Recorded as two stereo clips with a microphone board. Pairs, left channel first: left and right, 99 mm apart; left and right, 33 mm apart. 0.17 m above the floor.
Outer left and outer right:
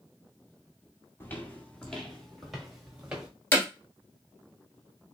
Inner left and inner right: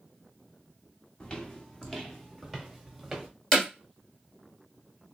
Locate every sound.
1.2 s footsteps: 20° left (ahead or behind), 1.4 m; by 3.3 s 10° right (ahead or behind), 2.5 m
3.5 s hammering: 20° left (ahead or behind), 1.9 m